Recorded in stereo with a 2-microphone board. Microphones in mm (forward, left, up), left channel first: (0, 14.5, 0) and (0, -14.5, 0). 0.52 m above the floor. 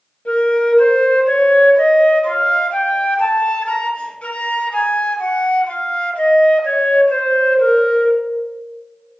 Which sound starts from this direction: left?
A flute, at 0.2 s.